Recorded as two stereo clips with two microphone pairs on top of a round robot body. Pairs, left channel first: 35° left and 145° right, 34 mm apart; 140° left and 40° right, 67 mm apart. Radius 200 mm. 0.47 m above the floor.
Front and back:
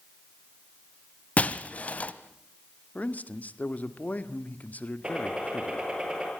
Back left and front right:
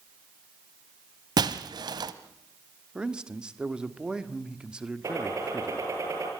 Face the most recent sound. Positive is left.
turn(degrees=-85)